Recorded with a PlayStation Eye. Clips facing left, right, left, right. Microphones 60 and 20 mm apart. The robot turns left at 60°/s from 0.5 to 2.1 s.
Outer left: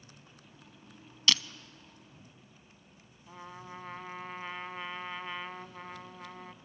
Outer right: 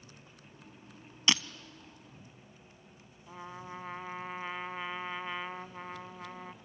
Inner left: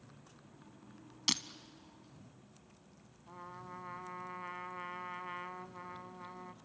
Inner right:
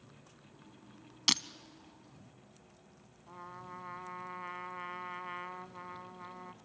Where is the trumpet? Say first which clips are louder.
Outer right 2 dB, inner right 1 dB; 10° right (ahead or behind), 0.5 m.